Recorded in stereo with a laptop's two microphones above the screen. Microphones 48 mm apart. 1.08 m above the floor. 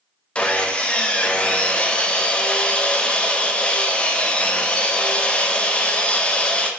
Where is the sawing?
20° left (ahead or behind), 0.5 m.